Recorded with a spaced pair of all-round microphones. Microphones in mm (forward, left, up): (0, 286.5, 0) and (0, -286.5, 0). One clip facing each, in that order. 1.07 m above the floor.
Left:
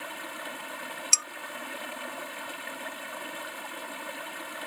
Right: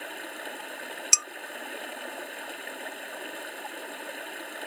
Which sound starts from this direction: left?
Running water, at 0.0 s.